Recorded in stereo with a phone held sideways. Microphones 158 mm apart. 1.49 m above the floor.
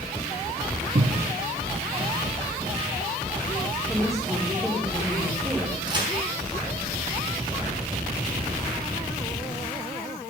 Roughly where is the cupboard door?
Right.